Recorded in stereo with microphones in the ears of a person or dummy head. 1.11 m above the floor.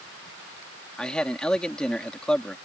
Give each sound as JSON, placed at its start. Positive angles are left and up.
{"t": 1.0, "sound": "a man speaking", "side_deg": 5}